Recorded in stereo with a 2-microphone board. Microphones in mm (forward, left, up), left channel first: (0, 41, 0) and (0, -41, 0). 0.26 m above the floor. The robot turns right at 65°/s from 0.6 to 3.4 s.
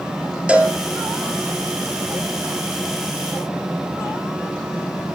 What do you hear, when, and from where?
0.5 s a cowbell: 15° right (ahead or behind), 3 m; by 0.8 s 5° right (ahead or behind), 3 m